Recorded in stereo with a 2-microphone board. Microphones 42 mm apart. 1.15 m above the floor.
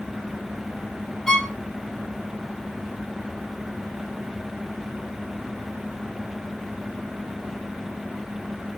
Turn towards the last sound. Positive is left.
turn(degrees=10)  # may be behind; listen again after turning